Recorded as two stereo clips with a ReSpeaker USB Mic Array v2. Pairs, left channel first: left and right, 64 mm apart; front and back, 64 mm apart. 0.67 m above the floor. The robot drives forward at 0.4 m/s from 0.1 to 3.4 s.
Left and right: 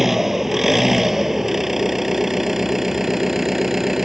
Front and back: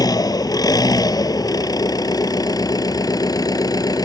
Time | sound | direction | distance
0.0 | an engine running | 5° right | ?